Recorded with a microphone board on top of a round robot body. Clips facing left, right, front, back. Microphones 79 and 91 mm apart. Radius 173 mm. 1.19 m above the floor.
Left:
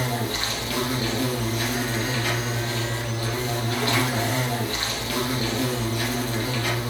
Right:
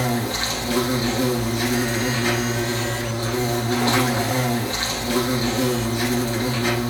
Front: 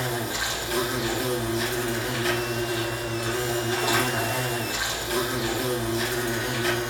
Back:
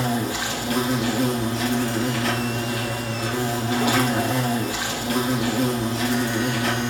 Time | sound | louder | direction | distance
0.0 | an insect | right 4 dB, back 4 dB | 155° right | 4.5 m